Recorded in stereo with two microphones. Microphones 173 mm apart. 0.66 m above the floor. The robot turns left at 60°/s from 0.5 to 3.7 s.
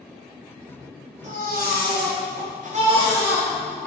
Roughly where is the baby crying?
Ahead right.